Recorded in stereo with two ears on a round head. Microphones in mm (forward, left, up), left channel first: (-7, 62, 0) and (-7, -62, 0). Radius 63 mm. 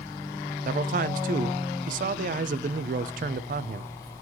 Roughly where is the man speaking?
Right.